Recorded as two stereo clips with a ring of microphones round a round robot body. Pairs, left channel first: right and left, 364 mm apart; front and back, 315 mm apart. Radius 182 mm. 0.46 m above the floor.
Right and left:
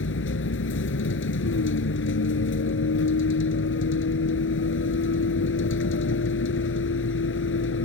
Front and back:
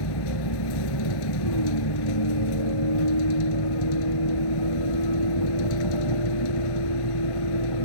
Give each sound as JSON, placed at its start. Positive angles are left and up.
{"t": 0.0, "sound": "a vehicle", "azimuth_deg": -30}